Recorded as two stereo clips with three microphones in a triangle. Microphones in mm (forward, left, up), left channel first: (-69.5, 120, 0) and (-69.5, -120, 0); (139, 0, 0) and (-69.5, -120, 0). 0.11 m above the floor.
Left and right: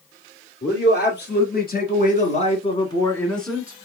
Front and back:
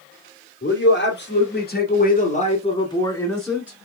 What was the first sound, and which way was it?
A man speaking, 55° left.